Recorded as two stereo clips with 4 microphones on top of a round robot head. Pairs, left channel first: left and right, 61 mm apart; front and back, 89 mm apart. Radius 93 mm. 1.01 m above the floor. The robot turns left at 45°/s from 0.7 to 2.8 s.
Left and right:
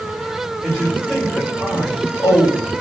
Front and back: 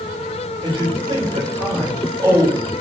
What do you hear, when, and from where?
0.6 s a man speaking: 170° right, 1.9 m; by 2.8 s 95° left, 1.9 m